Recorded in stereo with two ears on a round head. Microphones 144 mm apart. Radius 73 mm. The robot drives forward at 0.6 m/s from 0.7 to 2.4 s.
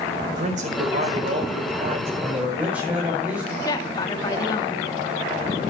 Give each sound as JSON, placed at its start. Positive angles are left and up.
{"t": 0.2, "sound": "a man speaking", "side_deg": -50, "distance_m": 4.5}
{"t": 2.2, "sound": "a man speaking", "side_deg": -15, "distance_m": 6.5}
{"t": 3.6, "sound": "a woman speaking", "side_deg": 25, "distance_m": 2.0}